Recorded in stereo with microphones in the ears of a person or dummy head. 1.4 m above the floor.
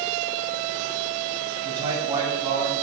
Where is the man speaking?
30° right (ahead or behind), 6.5 m; by 2.7 s 25° right (ahead or behind), 5.5 m.